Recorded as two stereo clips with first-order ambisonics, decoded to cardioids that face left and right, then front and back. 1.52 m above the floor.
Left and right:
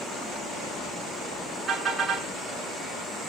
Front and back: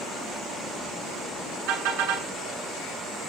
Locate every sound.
1.7 s a car horn: 165° right, 9 m